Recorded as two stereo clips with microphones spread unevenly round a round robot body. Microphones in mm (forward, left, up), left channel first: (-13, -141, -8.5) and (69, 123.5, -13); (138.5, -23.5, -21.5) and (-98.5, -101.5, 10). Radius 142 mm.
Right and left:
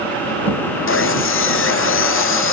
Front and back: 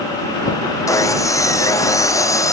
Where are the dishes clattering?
I don't hear dishes clattering.